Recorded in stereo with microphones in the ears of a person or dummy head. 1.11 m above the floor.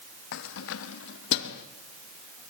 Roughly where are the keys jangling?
Left.